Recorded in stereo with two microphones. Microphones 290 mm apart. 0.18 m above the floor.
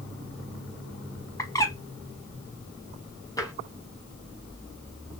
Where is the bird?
10° left (ahead or behind), 1.1 m.